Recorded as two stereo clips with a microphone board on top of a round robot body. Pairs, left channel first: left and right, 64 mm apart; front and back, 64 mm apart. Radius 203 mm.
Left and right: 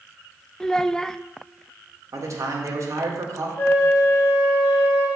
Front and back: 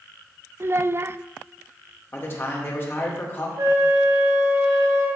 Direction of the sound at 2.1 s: 55° right.